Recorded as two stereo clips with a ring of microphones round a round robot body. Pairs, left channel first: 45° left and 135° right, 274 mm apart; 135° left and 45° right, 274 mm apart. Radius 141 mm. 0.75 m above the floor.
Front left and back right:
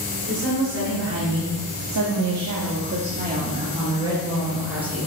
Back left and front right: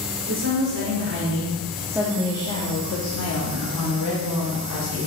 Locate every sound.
0.3 s a woman speaking: 85° right, 2.5 m; by 5.1 s 140° left, 3.5 m